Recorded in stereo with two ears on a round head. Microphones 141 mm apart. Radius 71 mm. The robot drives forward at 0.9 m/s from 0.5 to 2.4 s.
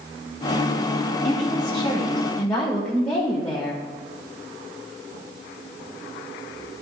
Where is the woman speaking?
35° left (ahead or behind), 1.3 m; by 3.8 s 20° left (ahead or behind), 2 m.